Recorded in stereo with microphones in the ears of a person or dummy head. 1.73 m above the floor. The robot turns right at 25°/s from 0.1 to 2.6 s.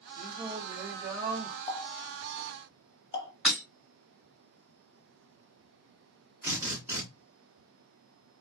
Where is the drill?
10° right (ahead or behind), 1.2 m.